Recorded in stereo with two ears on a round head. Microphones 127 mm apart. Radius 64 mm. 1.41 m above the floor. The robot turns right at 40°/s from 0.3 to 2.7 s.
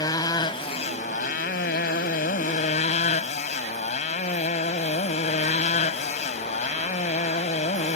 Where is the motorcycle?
25° left; by 8.0 s 120° left.